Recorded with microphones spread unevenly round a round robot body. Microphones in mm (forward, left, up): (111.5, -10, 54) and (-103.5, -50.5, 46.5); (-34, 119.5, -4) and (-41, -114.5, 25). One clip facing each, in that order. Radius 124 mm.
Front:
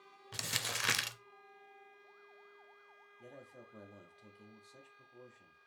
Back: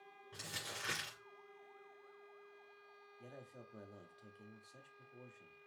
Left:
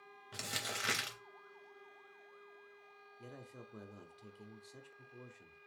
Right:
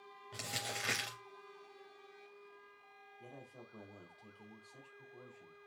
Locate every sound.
0.3 s crumpling: 5° left, 0.5 m
3.2 s a man speaking: 105° left, 0.7 m